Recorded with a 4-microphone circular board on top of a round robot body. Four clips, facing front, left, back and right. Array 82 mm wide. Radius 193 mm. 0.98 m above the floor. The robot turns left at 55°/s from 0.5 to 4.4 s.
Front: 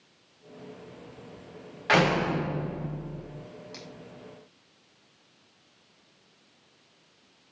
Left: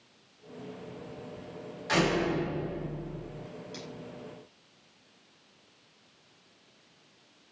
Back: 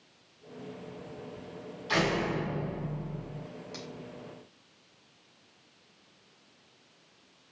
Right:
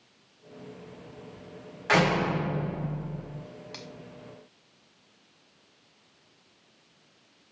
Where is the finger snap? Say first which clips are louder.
Left 1 dB, back 2 dB; 100° right, 6.5 m; by 3.9 s 105° right, 6.5 m.